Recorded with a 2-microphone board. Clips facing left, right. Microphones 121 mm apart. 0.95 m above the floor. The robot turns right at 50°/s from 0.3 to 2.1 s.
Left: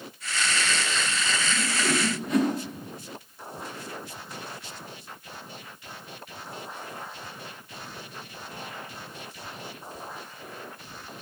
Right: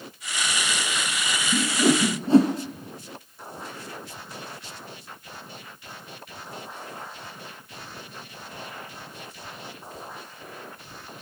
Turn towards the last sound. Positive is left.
turn(degrees=-30)  # may be behind; listen again after turning